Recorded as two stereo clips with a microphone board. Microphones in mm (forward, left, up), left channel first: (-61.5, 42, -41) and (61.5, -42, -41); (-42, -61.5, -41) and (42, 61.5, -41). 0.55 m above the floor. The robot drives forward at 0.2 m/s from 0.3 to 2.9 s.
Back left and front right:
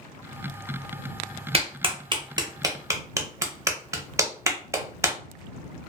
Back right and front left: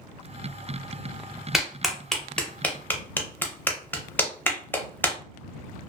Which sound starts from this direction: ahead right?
A clap, at 1.5 s.